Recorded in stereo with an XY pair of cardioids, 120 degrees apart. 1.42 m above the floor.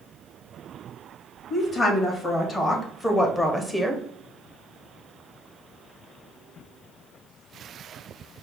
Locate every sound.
1.5 s a woman speaking: 30° left, 2.0 m; by 4.0 s 5° left, 0.8 m